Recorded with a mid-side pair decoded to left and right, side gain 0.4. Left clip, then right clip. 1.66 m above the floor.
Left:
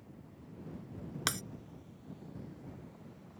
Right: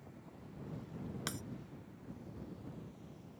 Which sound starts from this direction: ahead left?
Breaking glass, at 1.3 s.